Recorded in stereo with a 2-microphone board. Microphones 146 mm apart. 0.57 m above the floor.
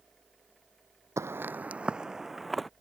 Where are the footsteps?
20° right (ahead or behind); by 2.7 s centre (ahead or behind).